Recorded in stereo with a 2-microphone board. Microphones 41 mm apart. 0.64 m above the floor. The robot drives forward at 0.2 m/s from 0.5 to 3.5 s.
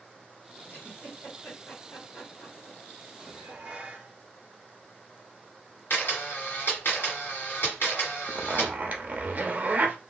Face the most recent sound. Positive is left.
turn(degrees=-35)  # may be behind; listen again after turning